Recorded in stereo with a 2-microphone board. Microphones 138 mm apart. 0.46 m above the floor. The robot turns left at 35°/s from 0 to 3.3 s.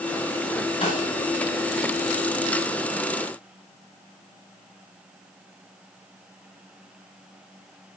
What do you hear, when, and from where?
0.8 s a snare drum: 45° left (ahead or behind), 2 m; by 1.1 s 35° left (ahead or behind), 2 m